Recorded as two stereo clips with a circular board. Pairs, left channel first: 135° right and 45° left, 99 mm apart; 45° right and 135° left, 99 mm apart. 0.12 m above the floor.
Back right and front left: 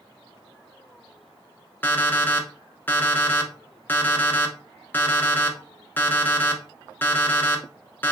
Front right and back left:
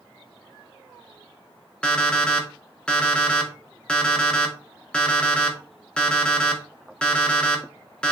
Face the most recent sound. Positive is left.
turn(degrees=-110)